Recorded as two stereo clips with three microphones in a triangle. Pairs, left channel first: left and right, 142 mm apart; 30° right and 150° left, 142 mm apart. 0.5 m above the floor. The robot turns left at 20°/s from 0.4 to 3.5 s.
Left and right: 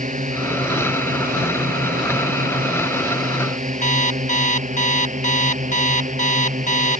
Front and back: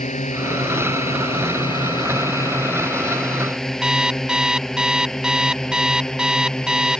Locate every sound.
0.0 s a drone: 60° right; by 7.0 s 115° right
3.8 s an alarm clock: 65° left